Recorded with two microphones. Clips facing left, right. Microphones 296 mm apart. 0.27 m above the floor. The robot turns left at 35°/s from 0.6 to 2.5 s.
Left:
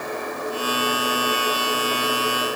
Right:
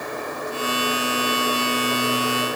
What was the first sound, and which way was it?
Only background noise.